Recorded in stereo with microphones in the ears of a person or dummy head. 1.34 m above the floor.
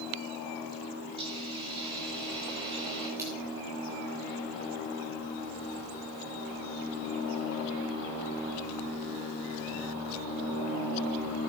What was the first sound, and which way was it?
A hiss, 25° right (ahead or behind).